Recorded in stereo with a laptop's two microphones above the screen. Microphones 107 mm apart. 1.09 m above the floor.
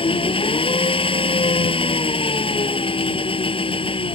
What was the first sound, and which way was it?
An engine running, 55° left (ahead or behind).